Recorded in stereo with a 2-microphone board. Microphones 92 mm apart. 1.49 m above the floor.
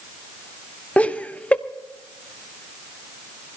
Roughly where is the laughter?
Centre.